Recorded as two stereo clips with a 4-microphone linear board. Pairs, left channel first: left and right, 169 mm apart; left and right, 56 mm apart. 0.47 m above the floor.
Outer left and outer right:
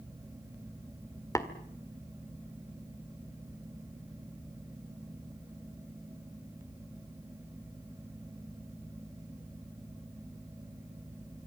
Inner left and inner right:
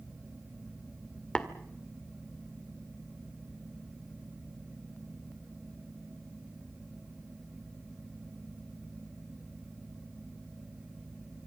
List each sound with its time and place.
1.4 s tapping: 20° left (ahead or behind), 1.7 m